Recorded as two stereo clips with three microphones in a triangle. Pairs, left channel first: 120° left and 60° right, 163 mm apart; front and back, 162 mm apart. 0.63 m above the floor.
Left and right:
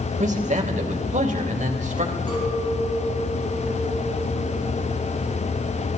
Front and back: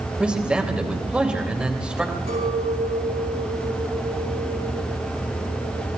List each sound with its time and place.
0.2 s a man speaking: 95° right, 3 m
2.3 s a clink: straight behind, 7 m